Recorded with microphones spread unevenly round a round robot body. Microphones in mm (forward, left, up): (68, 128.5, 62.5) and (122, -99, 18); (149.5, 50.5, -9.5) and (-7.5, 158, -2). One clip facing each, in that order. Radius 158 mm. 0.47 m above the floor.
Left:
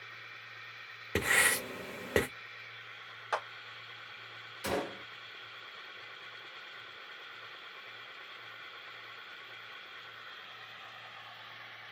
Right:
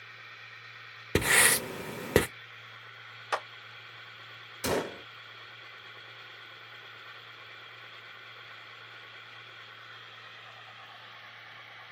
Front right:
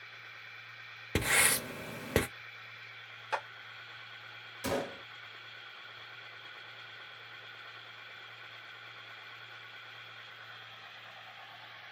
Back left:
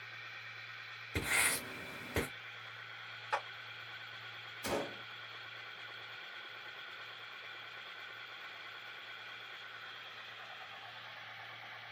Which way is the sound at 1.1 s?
40° right.